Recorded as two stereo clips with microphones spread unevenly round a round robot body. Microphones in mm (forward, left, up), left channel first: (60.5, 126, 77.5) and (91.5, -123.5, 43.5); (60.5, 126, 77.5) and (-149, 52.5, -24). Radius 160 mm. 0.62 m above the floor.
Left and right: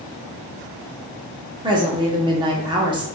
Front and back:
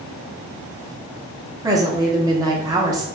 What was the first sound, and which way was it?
A woman speaking, 135° right.